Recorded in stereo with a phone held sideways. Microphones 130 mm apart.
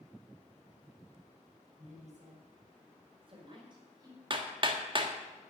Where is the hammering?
40° right (ahead or behind), 1.5 m.